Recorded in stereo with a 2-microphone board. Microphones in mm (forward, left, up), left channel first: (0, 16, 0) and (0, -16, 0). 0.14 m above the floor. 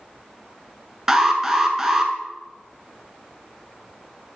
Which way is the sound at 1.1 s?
15° right (ahead or behind).